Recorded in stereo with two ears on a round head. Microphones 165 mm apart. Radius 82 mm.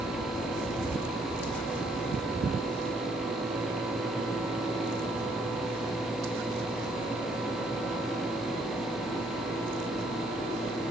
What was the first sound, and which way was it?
Only background noise.